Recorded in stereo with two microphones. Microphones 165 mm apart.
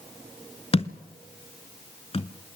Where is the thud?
35° left (ahead or behind), 0.9 m.